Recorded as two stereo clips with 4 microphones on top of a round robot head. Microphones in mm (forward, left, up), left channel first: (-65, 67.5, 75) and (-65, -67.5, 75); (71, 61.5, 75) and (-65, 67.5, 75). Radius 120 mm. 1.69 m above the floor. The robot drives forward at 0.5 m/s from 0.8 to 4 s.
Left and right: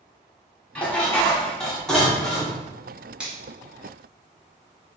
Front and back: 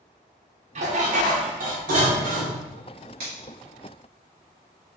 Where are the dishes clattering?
170° left, 0.8 m; by 2.6 s 175° left, 1.6 m.